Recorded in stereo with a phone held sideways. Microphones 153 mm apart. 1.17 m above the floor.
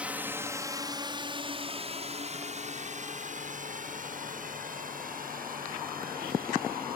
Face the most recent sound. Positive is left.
turn(degrees=-75)  # may be behind; listen again after turning